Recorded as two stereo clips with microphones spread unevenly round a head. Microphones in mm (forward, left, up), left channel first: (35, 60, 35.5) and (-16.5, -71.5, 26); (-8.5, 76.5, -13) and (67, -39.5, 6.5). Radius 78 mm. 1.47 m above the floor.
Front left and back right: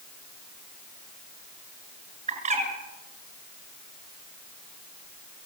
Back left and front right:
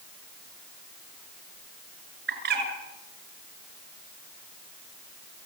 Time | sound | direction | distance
2.3 | a bird | 75° right | 7 m